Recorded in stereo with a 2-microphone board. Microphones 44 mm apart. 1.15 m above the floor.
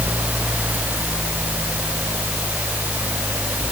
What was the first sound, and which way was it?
Only background noise.